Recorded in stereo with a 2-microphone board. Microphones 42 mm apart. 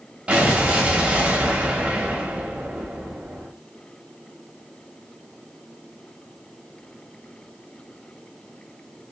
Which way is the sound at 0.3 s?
30° right (ahead or behind).